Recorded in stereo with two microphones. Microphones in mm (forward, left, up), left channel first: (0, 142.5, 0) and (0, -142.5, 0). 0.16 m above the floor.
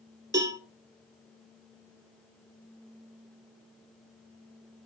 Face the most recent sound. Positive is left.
turn(degrees=-15)  # may be behind; listen again after turning